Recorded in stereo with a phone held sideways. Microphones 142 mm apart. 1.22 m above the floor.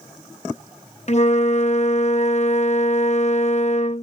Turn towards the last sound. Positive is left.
turn(degrees=55)  # may be behind; listen again after turning